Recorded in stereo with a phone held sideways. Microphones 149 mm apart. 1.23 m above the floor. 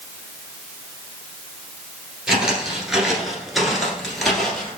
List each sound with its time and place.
2.3 s footsteps: 5° right (ahead or behind), 1.6 m; by 4.8 s centre (ahead or behind), 1.6 m